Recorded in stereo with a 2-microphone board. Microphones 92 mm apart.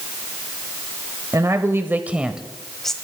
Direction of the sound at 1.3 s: 35° right (ahead or behind).